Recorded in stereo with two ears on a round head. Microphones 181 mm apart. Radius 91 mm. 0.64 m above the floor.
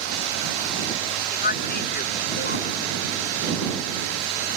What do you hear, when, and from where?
1.3 s a man speaking: 45° left (ahead or behind)